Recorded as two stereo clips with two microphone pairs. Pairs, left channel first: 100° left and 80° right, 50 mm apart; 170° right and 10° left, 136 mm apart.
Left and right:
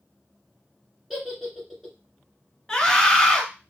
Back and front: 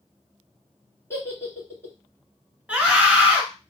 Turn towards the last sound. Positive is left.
turn(degrees=65)